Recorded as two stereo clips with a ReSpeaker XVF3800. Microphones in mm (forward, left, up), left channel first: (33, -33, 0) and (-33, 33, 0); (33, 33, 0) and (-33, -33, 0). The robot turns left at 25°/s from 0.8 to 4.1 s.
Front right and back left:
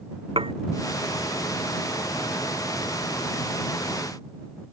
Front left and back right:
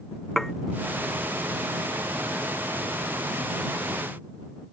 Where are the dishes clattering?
130° left.